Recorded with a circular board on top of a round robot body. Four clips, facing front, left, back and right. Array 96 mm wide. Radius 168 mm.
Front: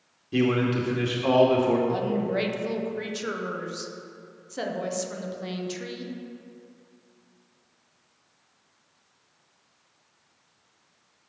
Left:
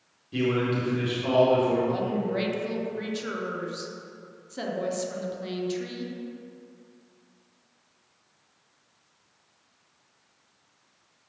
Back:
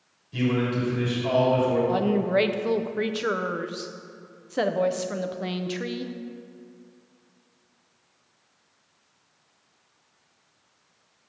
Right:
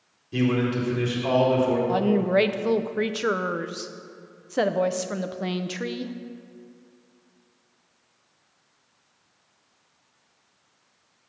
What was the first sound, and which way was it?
A man speaking, 15° right.